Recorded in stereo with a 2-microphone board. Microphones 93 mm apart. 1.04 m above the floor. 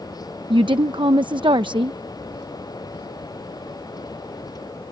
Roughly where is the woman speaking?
Right.